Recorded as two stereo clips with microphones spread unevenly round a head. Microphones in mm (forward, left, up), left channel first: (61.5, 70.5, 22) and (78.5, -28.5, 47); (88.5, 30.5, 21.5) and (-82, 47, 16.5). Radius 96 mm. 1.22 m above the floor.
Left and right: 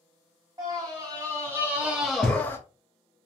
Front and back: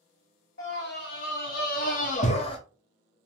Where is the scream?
25° right, 1.3 m; by 2.6 s 50° left, 0.8 m.